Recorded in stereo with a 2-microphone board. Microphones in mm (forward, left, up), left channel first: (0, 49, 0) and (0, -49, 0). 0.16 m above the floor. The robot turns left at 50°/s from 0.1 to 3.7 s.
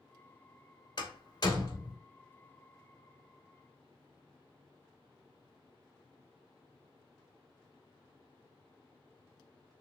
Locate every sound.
1.0 s a door slam: 50° left (ahead or behind), 1.4 m; by 2.0 s 30° left (ahead or behind), 1.4 m